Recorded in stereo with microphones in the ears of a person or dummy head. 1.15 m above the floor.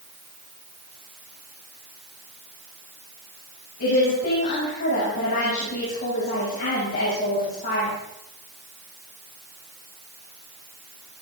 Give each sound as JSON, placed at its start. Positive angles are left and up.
{"t": 3.8, "sound": "a woman speaking", "side_deg": 55, "distance_m": 8.0}